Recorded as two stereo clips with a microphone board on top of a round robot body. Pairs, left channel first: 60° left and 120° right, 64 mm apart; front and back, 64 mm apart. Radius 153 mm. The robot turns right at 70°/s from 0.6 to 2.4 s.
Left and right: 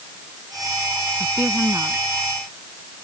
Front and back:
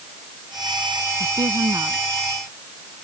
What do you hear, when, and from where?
1.2 s a woman speaking: 165° left; by 2.0 s 140° right